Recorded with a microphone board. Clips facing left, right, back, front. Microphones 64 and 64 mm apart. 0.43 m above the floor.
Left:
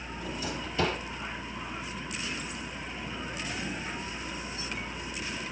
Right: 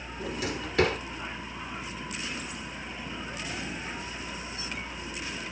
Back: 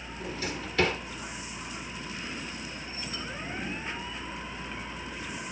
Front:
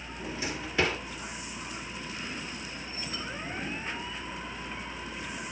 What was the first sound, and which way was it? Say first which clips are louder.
A drawer: right 3 dB, even; 75° right.